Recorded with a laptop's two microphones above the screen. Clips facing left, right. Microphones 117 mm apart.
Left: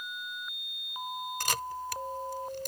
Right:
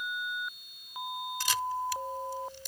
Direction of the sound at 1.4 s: 55° left (ahead or behind).